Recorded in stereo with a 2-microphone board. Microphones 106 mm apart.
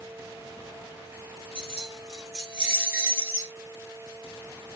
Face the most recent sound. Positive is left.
turn(degrees=-30)  # may be behind; listen again after turning